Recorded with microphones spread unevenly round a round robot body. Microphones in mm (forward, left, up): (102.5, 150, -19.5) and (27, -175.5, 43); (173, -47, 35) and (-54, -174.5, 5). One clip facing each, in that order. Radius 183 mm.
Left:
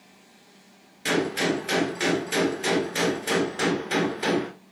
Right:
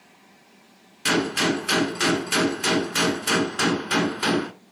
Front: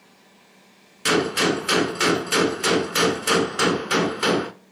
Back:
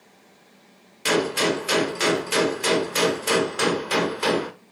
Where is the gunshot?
40° right, 1.3 m.